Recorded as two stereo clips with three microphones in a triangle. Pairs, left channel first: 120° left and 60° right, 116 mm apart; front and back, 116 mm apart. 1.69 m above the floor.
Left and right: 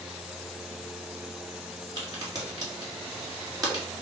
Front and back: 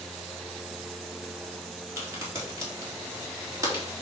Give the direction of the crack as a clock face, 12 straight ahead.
4 o'clock.